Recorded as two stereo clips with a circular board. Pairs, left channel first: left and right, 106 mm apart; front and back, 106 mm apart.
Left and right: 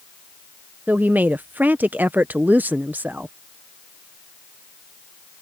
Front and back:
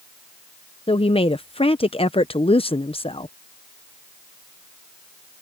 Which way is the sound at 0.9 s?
20° right.